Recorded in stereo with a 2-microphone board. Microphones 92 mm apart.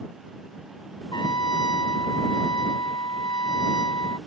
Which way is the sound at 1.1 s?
55° left (ahead or behind).